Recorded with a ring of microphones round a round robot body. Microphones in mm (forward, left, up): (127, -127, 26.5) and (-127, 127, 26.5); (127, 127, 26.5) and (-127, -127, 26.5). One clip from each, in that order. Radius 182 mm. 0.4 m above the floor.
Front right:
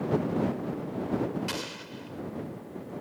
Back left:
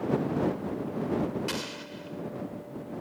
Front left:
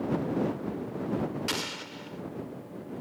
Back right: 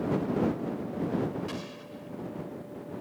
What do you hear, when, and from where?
1.5 s an explosion: 45° left